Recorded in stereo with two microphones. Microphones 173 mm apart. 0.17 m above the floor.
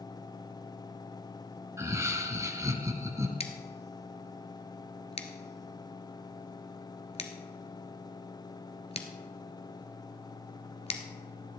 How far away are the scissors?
About 1.3 m.